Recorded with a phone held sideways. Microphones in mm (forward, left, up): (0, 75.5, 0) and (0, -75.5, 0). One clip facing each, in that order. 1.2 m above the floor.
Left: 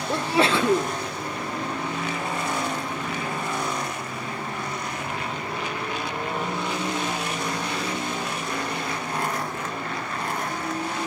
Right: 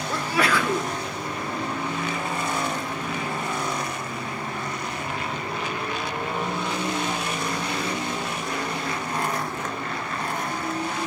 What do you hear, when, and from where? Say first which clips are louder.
0.1 s a sneeze: left 3 dB; 25° left (ahead or behind), 0.8 m